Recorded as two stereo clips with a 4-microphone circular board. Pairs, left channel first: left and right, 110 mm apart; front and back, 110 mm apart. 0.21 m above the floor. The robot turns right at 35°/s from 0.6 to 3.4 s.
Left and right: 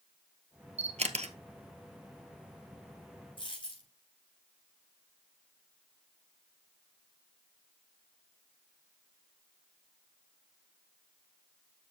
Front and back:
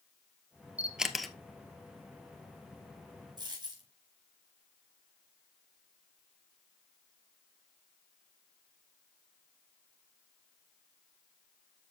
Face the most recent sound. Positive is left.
turn(degrees=135)